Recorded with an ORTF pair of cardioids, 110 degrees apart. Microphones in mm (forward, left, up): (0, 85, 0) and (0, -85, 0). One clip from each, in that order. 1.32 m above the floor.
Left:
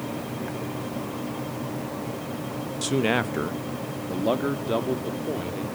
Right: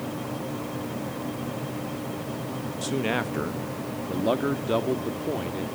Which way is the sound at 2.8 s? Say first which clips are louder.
Left 4 dB; 25° left.